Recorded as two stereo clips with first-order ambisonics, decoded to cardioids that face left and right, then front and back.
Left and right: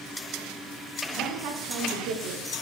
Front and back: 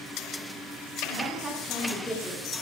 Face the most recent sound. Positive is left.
turn(degrees=-60)